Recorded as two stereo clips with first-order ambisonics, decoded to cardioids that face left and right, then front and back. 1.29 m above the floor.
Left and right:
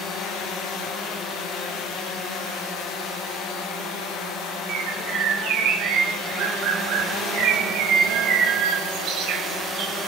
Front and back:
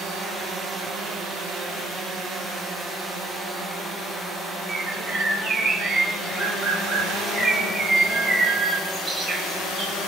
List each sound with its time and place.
4.7 s a bird: 110° right, 1.6 m